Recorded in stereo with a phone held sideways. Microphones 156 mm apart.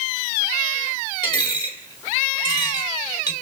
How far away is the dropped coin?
About 1.6 m.